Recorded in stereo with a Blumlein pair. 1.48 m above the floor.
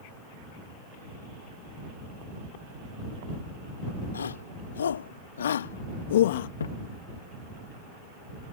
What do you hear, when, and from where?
4.1 s a shout: 70° left; by 6.5 s 55° left
6.6 s a thud: 65° left